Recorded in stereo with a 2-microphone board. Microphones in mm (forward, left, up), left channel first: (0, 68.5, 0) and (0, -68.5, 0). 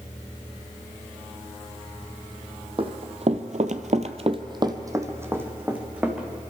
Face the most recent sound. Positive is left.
turn(degrees=-10)  # may be behind; listen again after turning